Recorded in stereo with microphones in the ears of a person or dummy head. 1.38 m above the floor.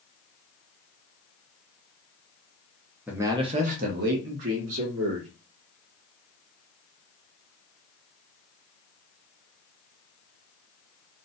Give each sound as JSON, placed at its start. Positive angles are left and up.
{"t": 3.1, "sound": "a man speaking", "side_deg": -5, "distance_m": 0.6}